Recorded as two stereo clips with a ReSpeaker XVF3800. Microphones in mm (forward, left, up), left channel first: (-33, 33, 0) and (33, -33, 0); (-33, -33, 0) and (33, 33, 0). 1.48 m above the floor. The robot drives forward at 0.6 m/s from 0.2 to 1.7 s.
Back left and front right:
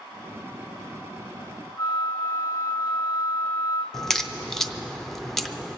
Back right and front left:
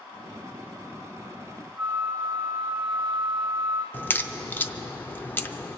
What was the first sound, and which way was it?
A flute, 135° left.